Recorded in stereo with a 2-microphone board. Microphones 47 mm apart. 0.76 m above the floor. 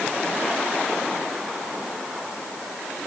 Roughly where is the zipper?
I don't hear a zipper.